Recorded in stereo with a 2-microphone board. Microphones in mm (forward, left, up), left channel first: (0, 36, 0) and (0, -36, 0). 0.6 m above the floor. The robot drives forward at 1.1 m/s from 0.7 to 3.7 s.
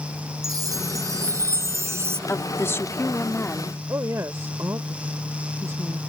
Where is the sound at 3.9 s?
45° right (ahead or behind).